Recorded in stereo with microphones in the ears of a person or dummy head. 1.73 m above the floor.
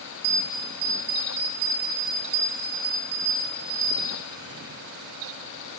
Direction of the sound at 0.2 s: 65° right (ahead or behind).